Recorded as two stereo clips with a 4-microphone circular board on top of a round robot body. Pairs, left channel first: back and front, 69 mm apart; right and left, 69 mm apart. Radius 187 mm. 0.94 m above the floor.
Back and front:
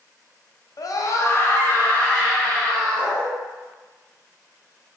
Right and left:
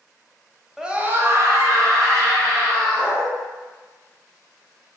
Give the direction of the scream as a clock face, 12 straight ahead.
6 o'clock.